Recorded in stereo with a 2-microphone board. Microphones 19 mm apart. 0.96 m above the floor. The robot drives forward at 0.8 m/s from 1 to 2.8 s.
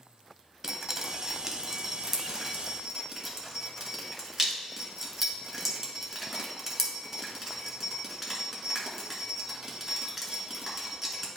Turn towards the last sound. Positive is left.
turn(degrees=-10)  # may be behind; listen again after turning